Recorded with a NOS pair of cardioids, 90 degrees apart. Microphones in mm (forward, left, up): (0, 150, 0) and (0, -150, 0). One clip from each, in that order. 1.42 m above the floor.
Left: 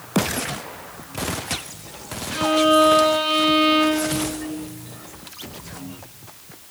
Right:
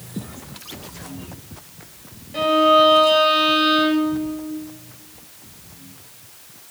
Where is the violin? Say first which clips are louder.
Right 2 dB; 5° right, 2 m.